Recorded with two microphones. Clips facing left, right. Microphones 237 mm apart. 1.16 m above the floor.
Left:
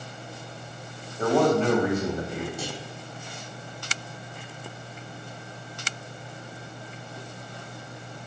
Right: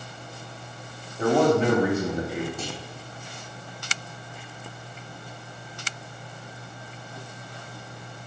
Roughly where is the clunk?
Centre.